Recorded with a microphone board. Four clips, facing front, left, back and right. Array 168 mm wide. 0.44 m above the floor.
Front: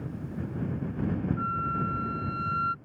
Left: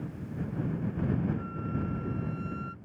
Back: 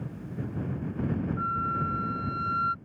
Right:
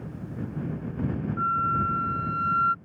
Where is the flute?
95° right.